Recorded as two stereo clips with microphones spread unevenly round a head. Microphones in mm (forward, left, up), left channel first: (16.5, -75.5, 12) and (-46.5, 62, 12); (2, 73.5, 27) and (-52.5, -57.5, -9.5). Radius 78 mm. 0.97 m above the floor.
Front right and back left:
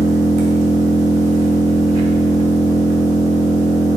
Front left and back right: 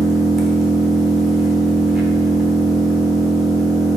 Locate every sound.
0.0 s an engine running: 150° left, 0.9 m